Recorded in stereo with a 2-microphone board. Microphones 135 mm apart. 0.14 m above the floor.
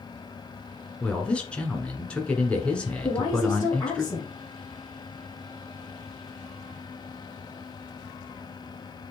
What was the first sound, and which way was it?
A man speaking, 10° left (ahead or behind).